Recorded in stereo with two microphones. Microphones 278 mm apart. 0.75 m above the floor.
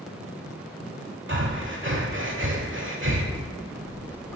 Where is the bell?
5° left (ahead or behind), 2.5 m.